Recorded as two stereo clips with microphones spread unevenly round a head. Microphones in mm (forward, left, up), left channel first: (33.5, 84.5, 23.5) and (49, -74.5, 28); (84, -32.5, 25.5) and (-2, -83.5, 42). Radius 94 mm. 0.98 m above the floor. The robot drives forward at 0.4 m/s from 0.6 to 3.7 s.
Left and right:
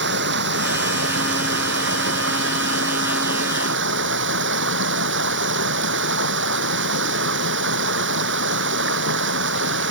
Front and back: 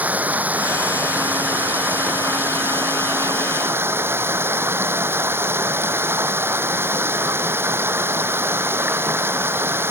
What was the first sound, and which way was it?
Running water, 75° right.